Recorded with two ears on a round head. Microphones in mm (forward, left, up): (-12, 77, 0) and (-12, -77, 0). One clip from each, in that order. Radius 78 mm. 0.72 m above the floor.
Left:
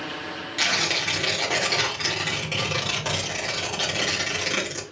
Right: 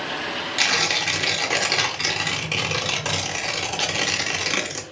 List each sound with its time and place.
0.6 s tearing paper: 20° right (ahead or behind), 1.4 m